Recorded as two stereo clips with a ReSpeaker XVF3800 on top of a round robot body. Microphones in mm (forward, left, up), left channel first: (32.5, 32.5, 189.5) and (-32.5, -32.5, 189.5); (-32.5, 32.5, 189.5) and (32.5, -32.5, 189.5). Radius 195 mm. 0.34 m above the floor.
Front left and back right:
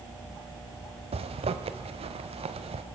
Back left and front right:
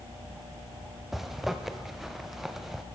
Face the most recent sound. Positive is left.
turn(degrees=-130)